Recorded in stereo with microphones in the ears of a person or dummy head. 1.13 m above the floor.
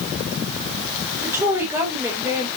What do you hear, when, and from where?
1.2 s a woman speaking: 10° right (ahead or behind), 4 m